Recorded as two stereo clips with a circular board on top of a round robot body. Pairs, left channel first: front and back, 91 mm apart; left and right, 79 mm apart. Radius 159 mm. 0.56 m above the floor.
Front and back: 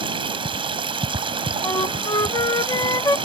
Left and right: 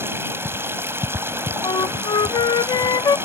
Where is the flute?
55° left.